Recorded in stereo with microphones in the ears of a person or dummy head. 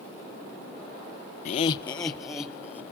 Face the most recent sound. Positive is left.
turn(degrees=15)  # may be behind; listen again after turning